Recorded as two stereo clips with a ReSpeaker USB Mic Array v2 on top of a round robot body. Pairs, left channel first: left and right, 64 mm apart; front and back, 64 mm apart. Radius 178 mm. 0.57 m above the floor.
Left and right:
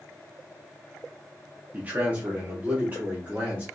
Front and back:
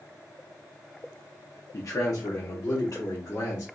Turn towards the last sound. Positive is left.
turn(degrees=-25)